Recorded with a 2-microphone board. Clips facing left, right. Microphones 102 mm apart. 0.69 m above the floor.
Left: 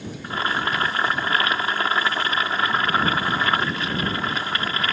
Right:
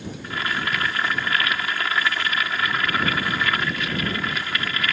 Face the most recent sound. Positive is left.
turn(degrees=35)  # may be behind; listen again after turning